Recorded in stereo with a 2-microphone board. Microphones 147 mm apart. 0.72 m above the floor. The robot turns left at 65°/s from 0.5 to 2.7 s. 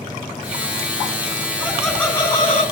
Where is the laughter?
160° right, 7 m; by 2.6 s 130° left, 7 m.